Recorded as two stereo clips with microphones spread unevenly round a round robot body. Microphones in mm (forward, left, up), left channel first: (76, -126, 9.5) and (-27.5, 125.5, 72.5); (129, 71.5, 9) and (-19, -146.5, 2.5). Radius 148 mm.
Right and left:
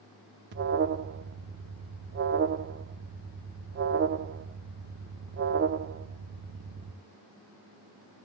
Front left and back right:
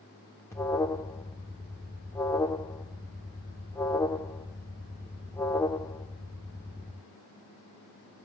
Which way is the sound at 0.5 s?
125° left.